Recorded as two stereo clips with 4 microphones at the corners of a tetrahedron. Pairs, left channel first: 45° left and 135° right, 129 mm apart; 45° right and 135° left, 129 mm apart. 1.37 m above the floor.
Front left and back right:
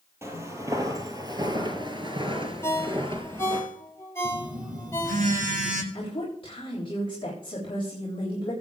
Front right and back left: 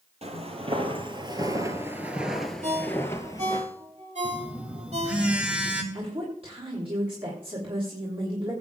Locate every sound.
0.2 s footsteps: 160° left, 2.5 m; by 3.6 s 95° right, 2 m
2.6 s a ringtone: 115° left, 2.5 m
4.2 s a phone buzzing: 145° right, 1.9 m
5.9 s a woman speaking: 90° left, 3.5 m